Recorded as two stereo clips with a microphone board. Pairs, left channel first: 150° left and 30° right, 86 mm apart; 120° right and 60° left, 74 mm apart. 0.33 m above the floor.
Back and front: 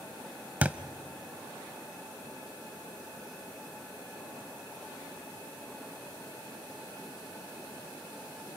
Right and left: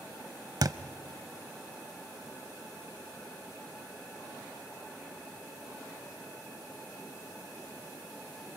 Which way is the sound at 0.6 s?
40° left.